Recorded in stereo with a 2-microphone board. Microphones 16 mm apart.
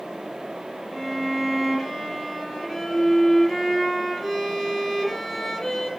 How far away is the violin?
About 4.5 m.